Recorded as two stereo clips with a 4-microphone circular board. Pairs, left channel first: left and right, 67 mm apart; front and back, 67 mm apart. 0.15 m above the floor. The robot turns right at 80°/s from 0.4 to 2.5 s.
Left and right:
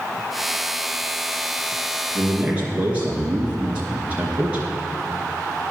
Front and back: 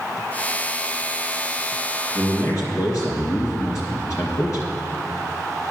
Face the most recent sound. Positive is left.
turn(degrees=-20)